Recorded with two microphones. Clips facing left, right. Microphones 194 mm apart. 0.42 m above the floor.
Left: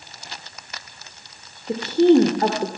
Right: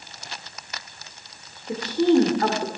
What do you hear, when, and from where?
1.7 s a woman speaking: 25° left (ahead or behind), 1.0 m